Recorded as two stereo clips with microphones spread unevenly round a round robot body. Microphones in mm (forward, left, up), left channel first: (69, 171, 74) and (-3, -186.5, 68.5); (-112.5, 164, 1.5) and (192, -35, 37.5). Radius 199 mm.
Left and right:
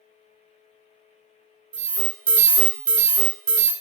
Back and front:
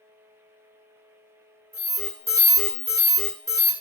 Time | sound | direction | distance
1.7 | an alarm | 120° right | 1.2 m